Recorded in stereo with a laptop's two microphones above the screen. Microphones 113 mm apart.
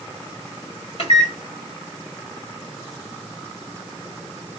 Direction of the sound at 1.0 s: 60° left (ahead or behind).